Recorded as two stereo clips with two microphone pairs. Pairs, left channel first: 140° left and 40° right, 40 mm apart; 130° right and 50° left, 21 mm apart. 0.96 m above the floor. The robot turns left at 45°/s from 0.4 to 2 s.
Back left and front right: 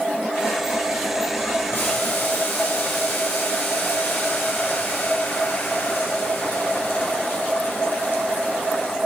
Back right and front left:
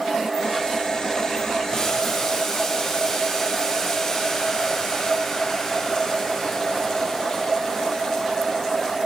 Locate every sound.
1.7 s boiling: 170° left, 4 m; by 9.0 s 155° left, 4 m